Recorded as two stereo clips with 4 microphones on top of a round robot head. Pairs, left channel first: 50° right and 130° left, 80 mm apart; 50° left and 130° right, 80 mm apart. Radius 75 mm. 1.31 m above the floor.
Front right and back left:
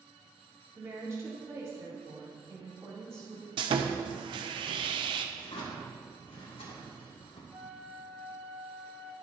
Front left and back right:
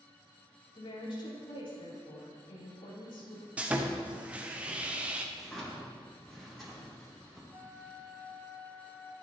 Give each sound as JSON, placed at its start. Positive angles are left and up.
{"t": 0.8, "sound": "a woman speaking", "azimuth_deg": 75, "distance_m": 3.0}
{"t": 3.6, "sound": "sawing", "azimuth_deg": 155, "distance_m": 0.6}
{"t": 5.3, "sound": "a drawer", "azimuth_deg": -40, "distance_m": 2.0}
{"t": 7.5, "sound": "a flute", "azimuth_deg": 175, "distance_m": 3.5}